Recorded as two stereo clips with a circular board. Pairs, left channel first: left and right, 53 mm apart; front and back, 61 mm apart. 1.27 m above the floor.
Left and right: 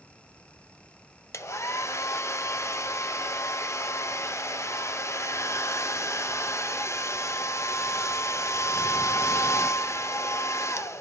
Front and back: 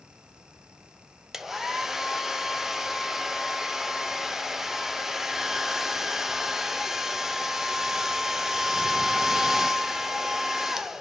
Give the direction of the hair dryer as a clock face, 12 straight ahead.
9 o'clock.